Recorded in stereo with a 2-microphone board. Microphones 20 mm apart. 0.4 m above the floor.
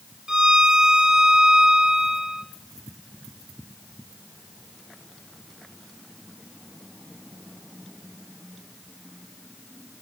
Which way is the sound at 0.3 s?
35° right (ahead or behind).